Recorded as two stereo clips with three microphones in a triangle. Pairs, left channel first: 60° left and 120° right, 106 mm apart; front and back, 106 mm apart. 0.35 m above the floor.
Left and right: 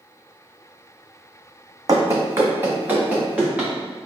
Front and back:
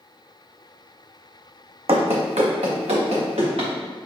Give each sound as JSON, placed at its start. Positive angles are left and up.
{"t": 1.9, "sound": "running footsteps", "azimuth_deg": -170, "distance_m": 0.9}